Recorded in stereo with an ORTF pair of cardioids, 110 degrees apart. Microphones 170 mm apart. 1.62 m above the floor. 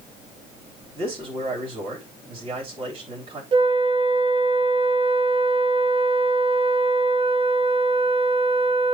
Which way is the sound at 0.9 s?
35° right.